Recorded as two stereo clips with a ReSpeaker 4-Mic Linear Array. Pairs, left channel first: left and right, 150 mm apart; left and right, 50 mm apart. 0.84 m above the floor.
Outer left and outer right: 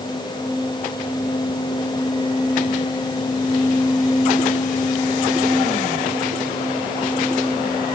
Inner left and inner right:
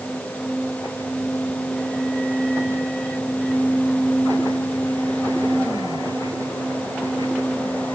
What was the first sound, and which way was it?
Only background noise.